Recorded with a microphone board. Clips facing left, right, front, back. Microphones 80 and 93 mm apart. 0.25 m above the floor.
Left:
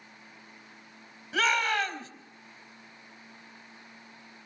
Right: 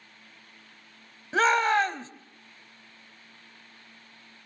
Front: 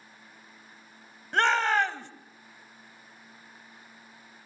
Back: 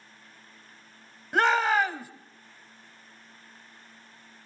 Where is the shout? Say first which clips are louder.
Right 5 dB, back 1 dB; 100° right, 1.2 m.